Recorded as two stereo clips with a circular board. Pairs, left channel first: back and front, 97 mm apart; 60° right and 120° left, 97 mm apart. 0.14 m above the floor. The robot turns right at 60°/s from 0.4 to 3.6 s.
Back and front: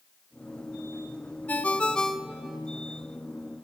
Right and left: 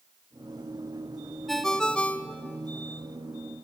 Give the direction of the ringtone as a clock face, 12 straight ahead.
5 o'clock.